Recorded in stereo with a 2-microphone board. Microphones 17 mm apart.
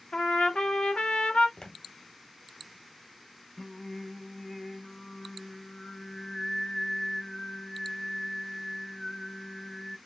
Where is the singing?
20° left (ahead or behind), 0.6 m.